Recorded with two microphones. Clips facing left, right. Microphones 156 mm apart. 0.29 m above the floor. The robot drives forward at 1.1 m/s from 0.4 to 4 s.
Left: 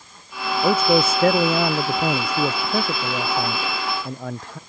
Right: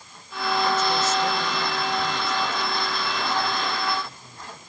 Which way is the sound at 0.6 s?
60° left (ahead or behind).